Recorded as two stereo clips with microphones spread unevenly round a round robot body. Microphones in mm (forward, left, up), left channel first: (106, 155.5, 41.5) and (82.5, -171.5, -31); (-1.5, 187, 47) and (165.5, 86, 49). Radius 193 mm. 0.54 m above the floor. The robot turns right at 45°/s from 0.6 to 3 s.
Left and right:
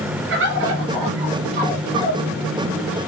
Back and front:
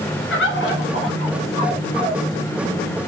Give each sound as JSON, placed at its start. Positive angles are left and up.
{"t": 0.3, "sound": "a bird", "azimuth_deg": -155, "distance_m": 1.9}